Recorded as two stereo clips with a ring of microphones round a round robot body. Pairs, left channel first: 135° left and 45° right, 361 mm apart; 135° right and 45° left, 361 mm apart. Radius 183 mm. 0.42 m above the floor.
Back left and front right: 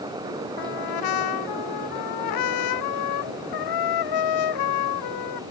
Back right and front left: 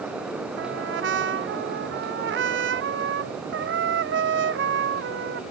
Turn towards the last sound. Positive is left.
turn(degrees=105)